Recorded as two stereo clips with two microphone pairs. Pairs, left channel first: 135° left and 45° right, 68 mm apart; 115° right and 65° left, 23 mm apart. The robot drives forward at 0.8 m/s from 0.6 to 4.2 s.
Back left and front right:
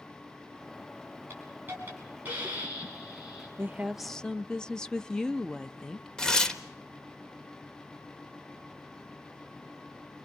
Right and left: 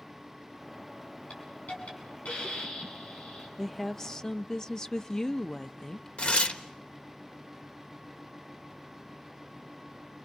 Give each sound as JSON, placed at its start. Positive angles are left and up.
{"t": 1.3, "sound": "a hiss", "azimuth_deg": -100, "distance_m": 6.5}
{"t": 3.6, "sound": "a woman speaking", "azimuth_deg": -30, "distance_m": 0.5}
{"t": 6.2, "sound": "tearing paper", "azimuth_deg": -145, "distance_m": 1.2}